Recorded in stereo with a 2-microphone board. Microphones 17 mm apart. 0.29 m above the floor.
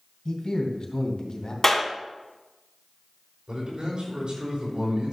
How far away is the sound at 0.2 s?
About 2 m.